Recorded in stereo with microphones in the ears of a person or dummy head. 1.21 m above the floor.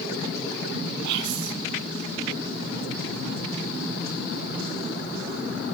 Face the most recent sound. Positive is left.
turn(degrees=-75)  # may be behind; listen again after turning